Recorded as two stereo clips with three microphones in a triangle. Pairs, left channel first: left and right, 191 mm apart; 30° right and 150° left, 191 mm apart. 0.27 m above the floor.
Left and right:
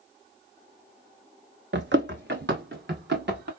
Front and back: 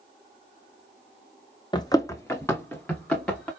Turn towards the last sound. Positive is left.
turn(degrees=-115)